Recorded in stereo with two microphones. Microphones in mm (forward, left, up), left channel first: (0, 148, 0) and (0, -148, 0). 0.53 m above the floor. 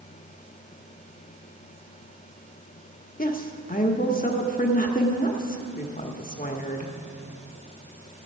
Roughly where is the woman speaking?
Left.